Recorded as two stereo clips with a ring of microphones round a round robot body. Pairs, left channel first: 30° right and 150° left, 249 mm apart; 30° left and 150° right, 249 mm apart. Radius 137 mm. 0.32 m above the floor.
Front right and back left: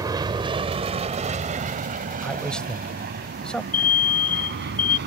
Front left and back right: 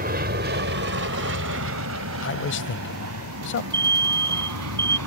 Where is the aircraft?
145° right; by 5.1 s 165° right.